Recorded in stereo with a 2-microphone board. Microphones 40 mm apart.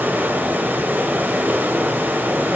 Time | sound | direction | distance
0.0 | running water | 55° right (ahead or behind) | 0.8 m